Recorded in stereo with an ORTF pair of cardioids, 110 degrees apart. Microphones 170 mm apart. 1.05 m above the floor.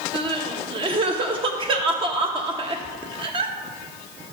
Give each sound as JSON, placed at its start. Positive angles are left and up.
{"t": 0.1, "sound": "crying", "azimuth_deg": -30, "distance_m": 1.0}